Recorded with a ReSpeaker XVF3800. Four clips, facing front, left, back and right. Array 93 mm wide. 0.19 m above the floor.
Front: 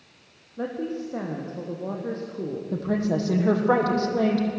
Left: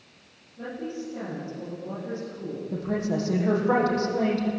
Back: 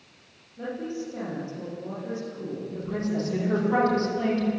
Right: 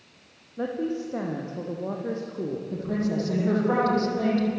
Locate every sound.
0.6 s a woman speaking: 45° right, 6.5 m
2.7 s a woman speaking: 10° left, 7.5 m